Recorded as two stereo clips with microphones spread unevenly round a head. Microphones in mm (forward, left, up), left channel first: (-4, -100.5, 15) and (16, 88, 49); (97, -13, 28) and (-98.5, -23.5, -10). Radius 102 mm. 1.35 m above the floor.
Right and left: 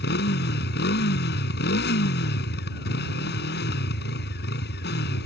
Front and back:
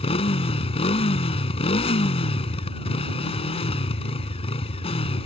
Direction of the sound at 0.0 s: 55° right.